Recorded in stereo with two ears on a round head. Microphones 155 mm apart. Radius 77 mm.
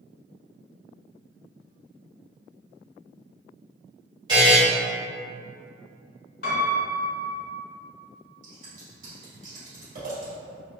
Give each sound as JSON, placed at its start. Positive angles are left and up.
{"t": 4.3, "sound": "a buzzer", "side_deg": -25, "distance_m": 1.8}
{"t": 6.4, "sound": "a piano", "side_deg": 55, "distance_m": 1.8}
{"t": 8.4, "sound": "scissors", "side_deg": -50, "distance_m": 1.9}